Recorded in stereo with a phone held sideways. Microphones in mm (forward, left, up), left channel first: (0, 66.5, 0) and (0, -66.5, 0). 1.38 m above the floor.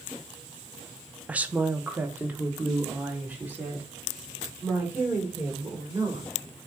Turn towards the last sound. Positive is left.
turn(degrees=-15)  # may be behind; listen again after turning